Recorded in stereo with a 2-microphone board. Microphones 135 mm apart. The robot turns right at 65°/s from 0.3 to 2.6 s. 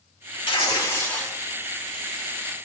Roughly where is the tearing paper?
Behind left.